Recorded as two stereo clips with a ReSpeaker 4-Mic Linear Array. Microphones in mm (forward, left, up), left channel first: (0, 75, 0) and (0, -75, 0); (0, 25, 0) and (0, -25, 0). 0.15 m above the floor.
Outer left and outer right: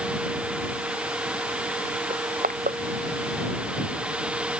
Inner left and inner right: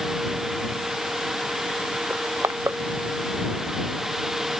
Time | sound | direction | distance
2.1 | crushing | 70° right (ahead or behind) | ?